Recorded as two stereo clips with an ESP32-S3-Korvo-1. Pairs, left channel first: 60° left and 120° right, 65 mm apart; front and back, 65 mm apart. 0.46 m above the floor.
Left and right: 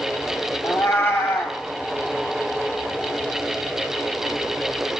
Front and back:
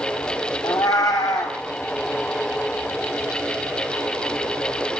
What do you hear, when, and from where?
0.6 s a cat meowing: 10° left, 1.6 m